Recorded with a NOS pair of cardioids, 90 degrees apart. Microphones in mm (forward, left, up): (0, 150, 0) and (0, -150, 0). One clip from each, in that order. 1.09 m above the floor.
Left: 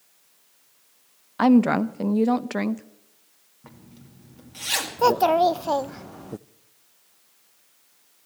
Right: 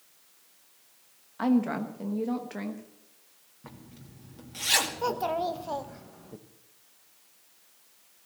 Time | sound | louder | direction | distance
1.4 | a woman speaking | left 9 dB | 55° left | 0.8 m
3.6 | a zipper | even | 5° right | 2.5 m
5.0 | a child speaking | left 11 dB | 45° left | 0.5 m